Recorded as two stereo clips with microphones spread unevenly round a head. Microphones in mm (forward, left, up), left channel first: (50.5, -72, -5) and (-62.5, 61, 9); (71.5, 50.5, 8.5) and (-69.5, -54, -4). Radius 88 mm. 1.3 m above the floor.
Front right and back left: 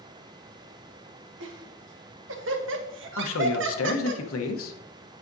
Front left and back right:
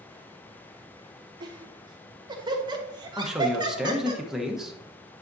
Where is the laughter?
150° left, 1.3 m.